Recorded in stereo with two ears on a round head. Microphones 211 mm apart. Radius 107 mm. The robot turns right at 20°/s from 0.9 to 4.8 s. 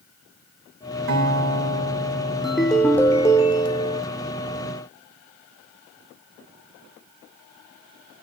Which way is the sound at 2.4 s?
5° right.